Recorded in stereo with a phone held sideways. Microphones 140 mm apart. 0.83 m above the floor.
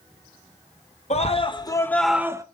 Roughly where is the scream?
Left.